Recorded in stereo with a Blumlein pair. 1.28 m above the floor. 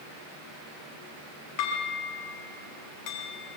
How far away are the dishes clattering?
About 7.5 m.